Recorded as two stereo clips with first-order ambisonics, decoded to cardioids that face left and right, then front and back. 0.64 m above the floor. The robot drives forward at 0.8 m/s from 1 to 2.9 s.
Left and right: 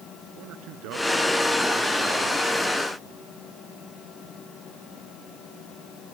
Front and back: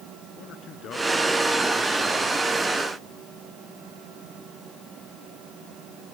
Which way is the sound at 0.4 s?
55° right.